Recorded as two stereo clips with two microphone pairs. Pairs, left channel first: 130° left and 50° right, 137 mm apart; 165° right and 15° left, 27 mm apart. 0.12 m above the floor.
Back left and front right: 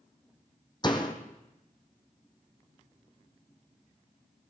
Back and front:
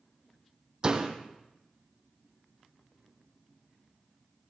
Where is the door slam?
75° left, 3 m.